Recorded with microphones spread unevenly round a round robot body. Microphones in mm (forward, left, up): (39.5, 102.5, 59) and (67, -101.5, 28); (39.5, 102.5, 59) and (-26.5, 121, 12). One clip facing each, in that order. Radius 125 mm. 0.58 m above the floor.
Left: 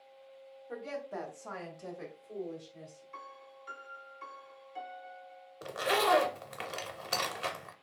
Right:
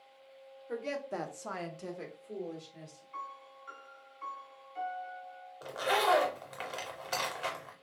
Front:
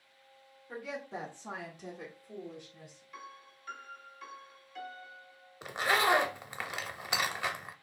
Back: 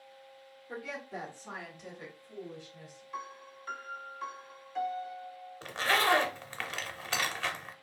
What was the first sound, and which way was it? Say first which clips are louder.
A woman speaking: right 3 dB, even; 140° right.